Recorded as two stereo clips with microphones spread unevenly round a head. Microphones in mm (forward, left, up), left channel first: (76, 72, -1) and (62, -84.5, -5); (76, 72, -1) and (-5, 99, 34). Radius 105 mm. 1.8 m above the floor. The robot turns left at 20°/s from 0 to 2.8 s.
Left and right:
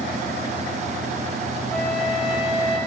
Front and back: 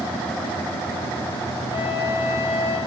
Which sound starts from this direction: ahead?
A flute, at 1.7 s.